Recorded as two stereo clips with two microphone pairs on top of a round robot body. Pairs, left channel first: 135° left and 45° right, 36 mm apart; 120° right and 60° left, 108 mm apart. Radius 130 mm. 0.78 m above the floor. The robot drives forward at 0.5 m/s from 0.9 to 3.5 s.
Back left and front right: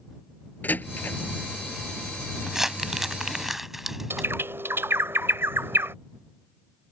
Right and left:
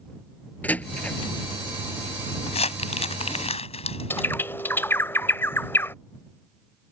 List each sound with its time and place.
0.6 s a door slam: 165° left
2.5 s crumpling: 125° right; by 4.3 s 130° right
4.1 s a bird: 50° right